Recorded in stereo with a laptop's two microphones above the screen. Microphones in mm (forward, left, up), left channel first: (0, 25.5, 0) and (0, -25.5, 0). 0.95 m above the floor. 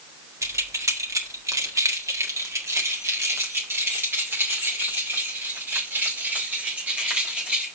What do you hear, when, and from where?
0.4 s keys jangling: 65° right (ahead or behind), 1.5 m; by 7.7 s 25° right (ahead or behind), 4 m